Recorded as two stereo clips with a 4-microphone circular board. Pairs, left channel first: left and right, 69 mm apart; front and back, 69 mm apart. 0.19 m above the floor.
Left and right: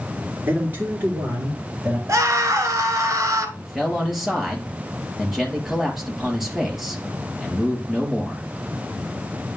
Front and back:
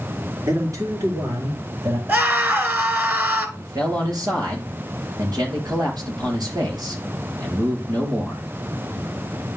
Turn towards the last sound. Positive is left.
turn(degrees=180)